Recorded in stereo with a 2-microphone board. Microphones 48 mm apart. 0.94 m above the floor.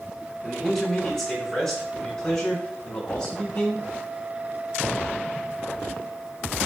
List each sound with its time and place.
0.4 s a man speaking: 5° left (ahead or behind), 7 m; by 3.9 s 20° left (ahead or behind), 6 m